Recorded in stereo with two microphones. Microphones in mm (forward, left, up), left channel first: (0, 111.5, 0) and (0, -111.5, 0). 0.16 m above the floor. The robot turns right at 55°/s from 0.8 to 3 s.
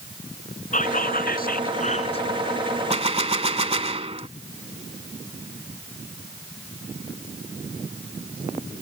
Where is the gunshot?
30° right (ahead or behind).